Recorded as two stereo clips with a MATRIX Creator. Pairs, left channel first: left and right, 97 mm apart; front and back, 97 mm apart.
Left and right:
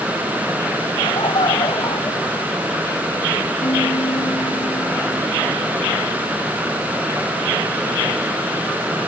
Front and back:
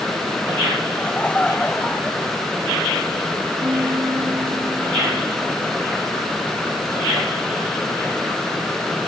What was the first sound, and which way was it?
Laughter, 75° left.